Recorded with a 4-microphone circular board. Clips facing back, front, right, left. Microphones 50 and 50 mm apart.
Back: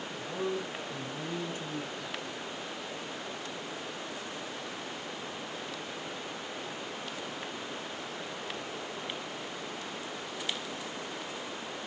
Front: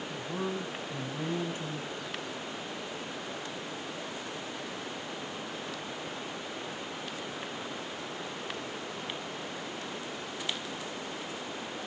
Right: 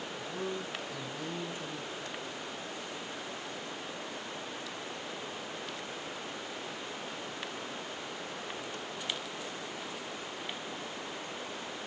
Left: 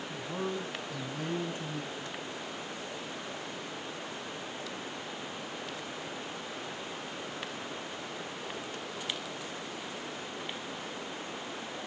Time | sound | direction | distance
0.1 | a man speaking | 40° left | 3 m